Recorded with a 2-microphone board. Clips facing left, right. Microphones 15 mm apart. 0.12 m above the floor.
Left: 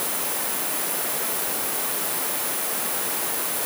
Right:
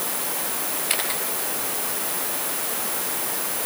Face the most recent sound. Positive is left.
turn(degrees=-70)  # may be behind; listen again after turning